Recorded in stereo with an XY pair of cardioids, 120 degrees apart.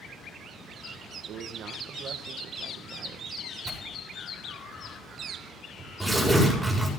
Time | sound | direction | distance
1.2 | a man speaking | 55° right | 2 m
3.6 | tearing paper | straight ahead | 7.5 m